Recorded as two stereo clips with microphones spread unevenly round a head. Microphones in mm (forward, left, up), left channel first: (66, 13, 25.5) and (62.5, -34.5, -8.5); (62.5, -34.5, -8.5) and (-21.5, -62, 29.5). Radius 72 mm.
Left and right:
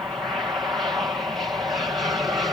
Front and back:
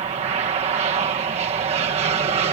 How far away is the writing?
No writing in this recording.